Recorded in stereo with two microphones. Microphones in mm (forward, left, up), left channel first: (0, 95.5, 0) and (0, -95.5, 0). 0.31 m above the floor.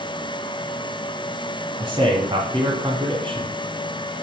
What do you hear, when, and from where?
1.8 s a man speaking: 25° right (ahead or behind), 2 m